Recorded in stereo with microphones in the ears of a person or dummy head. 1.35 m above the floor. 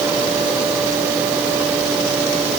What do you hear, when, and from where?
Only background noise.